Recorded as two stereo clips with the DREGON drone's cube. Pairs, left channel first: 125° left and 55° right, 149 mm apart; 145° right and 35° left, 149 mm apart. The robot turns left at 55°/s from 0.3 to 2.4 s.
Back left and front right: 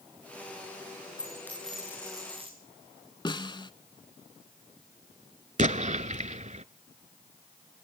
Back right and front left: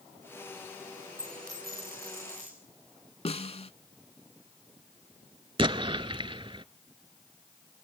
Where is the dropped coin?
65° left, 6.5 m; by 2.5 s 5° right, 6.5 m.